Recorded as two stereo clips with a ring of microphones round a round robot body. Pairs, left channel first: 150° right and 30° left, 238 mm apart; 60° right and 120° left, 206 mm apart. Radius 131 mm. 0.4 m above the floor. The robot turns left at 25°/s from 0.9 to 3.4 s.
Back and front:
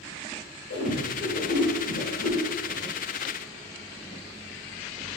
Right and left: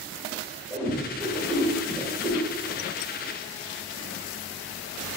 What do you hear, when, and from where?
0.7 s a whoosh: 135° right, 1.6 m; by 2.4 s 170° right, 1.6 m